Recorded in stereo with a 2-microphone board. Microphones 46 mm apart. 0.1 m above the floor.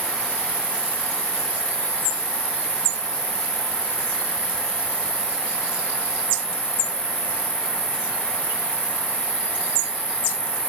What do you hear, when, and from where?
0.0 s an insect: 10° left (ahead or behind), 9 m